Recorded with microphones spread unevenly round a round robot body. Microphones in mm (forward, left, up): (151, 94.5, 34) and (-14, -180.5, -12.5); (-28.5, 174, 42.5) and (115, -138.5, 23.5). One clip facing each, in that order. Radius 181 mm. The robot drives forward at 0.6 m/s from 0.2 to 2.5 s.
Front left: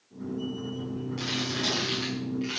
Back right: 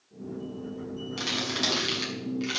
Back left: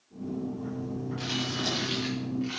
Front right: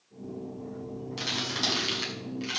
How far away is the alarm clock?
I don't hear an alarm clock.